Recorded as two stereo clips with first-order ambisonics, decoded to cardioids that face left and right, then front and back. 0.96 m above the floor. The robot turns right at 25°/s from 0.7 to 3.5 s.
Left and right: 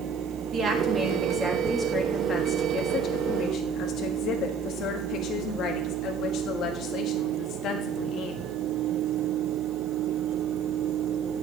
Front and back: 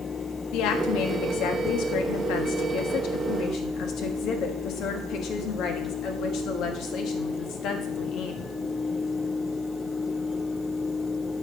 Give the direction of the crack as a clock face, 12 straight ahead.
I don't hear a crack.